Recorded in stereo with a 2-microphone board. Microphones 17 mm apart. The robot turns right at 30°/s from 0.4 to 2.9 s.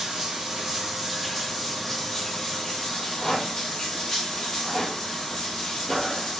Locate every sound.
0.0 s running water: 35° right, 7.5 m; by 6.4 s 40° left, 7.5 m
3.0 s a rattle: 40° left (ahead or behind), 6 m